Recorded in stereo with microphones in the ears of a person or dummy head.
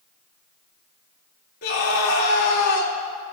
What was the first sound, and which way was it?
A scream, 50° left (ahead or behind).